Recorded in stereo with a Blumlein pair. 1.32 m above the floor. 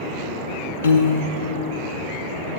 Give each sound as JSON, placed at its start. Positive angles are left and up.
{"t": 0.8, "sound": "a piano", "azimuth_deg": 70, "distance_m": 0.8}